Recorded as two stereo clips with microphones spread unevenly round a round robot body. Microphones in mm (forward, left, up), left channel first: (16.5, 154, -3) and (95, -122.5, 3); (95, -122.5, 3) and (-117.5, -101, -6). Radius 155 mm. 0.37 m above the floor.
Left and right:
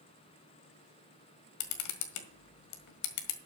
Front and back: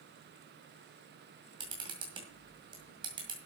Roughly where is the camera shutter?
Left.